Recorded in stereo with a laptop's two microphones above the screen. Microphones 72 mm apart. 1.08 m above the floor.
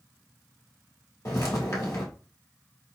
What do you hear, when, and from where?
1.2 s footsteps: 45° left (ahead or behind), 1.6 m